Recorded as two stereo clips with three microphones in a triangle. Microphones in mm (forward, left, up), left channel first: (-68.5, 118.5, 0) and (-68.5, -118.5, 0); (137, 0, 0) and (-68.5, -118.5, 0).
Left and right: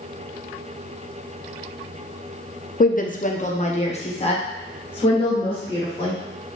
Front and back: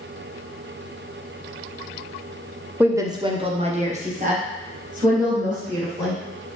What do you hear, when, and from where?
2.8 s a woman speaking: 130° left, 0.5 m; by 6.2 s 160° left, 2.5 m